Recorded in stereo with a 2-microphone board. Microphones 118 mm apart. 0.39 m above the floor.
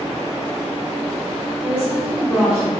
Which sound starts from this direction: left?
A woman speaking, at 1.6 s.